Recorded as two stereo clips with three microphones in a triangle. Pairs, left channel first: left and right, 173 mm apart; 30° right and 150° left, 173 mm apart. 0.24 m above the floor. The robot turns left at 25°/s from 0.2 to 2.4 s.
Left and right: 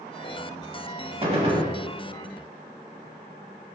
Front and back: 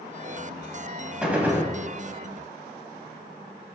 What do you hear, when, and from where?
1.2 s a gunshot: 130° right, 0.6 m; by 1.7 s 140° right, 0.6 m